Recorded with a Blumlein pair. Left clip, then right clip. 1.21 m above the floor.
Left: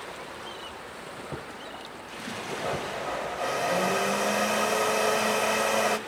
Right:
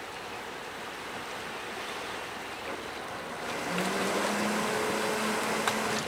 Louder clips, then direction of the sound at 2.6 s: Left 6 dB; 65° left.